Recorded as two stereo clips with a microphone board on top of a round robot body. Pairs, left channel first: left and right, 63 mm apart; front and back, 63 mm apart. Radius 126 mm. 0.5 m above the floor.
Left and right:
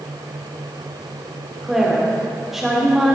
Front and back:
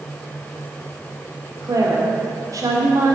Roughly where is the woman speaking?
Behind.